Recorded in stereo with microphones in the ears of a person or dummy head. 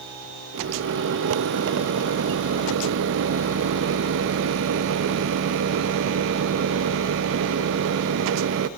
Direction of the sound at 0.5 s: 75° right (ahead or behind).